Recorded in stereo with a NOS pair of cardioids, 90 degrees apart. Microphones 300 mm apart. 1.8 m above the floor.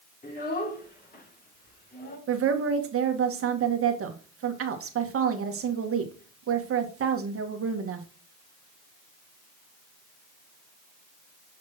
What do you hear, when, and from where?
0.2 s a child speaking: 30° left, 3.5 m
2.3 s a woman speaking: 50° right, 1.7 m